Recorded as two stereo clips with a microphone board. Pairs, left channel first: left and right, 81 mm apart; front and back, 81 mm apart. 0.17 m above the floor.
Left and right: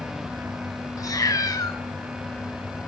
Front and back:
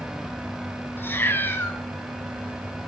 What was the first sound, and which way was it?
A cat meowing, 55° left.